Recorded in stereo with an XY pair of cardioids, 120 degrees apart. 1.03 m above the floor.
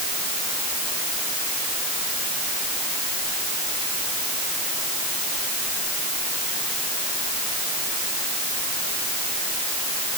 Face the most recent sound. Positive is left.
No sound to turn to.